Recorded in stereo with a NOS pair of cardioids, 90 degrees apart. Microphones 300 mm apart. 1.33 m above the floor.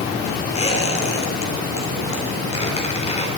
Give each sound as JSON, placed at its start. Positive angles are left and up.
{"t": 0.6, "sound": "a squeak", "azimuth_deg": 20, "distance_m": 3.5}